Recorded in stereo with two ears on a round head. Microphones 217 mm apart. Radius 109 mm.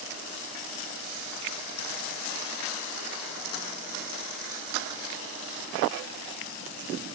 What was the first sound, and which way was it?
Only background noise.